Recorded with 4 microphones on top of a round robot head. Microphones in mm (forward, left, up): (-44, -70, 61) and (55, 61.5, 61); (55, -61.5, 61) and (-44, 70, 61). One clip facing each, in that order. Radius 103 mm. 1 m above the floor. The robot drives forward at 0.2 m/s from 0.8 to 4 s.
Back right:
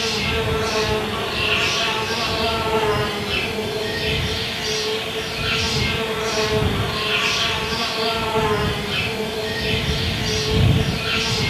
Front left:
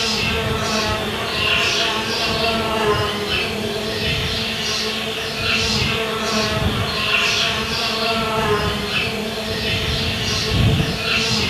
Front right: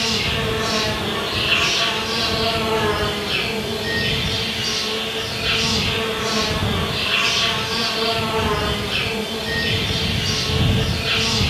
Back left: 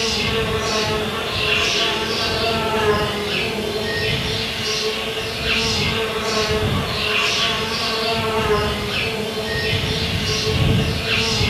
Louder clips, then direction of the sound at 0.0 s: Even, back left 2 dB; 40° right.